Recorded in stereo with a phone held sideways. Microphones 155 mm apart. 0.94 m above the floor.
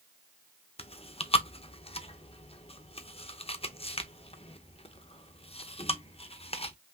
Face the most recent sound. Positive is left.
turn(degrees=40)  # may be behind; listen again after turning